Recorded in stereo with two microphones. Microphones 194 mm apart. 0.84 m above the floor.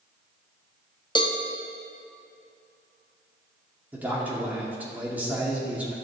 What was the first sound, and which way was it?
A cowbell, 25° left (ahead or behind).